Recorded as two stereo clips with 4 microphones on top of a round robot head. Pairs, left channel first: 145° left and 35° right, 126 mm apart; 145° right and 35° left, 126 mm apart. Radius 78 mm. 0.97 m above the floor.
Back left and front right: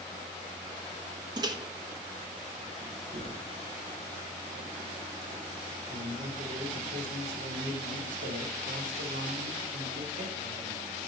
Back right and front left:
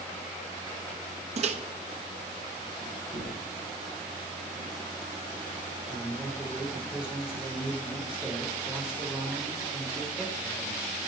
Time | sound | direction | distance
1.4 | a microwave | 15° left | 1.2 m
3.1 | a gunshot | 80° right | 7 m
5.9 | a man speaking | 45° right | 4 m